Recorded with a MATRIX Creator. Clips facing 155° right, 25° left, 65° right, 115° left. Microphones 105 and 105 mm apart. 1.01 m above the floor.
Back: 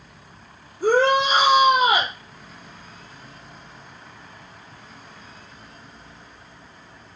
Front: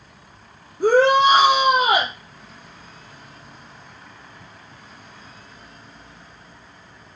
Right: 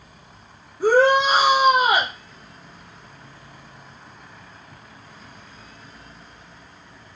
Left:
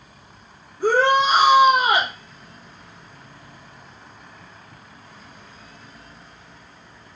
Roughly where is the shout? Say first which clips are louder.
Front 3 dB, right 2 dB; ahead.